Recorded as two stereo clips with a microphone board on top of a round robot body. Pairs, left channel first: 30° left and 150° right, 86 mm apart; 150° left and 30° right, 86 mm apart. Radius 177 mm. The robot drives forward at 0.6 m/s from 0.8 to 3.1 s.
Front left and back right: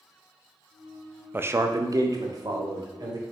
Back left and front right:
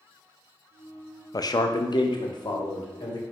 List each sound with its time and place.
1.3 s a man speaking: 155° left, 0.5 m; by 3.2 s 175° left, 1.4 m